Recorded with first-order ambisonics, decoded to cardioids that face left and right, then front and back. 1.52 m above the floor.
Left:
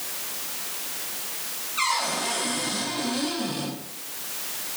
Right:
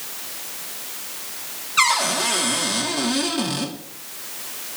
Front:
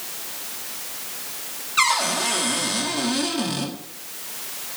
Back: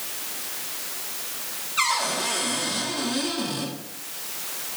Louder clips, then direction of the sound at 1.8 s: Right 7 dB, front 4 dB; 60° right.